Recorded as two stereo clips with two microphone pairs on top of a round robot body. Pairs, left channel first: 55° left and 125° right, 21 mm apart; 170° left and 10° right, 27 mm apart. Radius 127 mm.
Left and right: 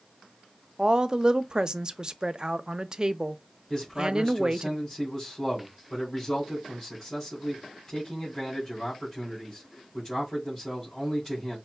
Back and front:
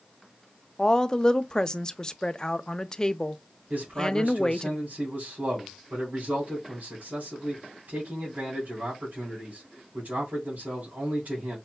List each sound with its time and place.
0.8 s a woman speaking: 150° right, 0.6 m
3.7 s a man speaking: 25° right, 3 m